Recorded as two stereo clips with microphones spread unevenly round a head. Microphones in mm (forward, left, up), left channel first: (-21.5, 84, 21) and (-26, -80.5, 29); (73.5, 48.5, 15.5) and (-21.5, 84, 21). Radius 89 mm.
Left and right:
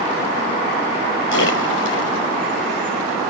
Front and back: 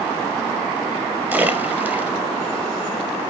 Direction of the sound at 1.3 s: 85° left.